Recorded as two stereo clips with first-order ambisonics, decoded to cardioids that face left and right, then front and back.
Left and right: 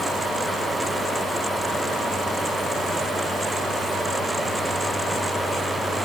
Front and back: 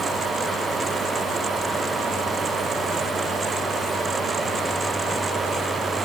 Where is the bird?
I don't hear a bird.